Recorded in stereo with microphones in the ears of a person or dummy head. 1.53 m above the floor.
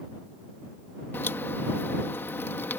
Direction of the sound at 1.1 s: 10° left (ahead or behind).